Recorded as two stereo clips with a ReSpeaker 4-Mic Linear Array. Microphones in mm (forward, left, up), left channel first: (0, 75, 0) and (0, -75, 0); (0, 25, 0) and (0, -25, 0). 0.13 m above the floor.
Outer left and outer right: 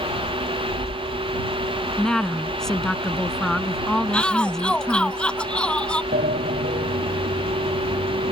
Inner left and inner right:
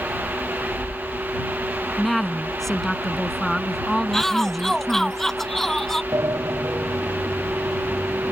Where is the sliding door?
85° right.